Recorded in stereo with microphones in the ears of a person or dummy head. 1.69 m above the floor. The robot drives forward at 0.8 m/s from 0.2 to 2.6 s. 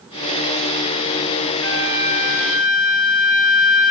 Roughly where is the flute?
Right.